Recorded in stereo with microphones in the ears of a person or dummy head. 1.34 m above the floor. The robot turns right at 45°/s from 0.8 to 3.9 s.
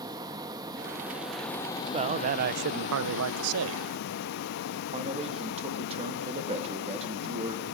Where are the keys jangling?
No keys jangling in this recording.